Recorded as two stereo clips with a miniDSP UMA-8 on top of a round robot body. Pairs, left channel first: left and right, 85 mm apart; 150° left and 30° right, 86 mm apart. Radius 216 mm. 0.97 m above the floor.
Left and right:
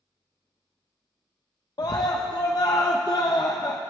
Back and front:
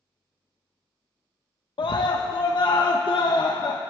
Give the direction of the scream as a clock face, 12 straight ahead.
8 o'clock.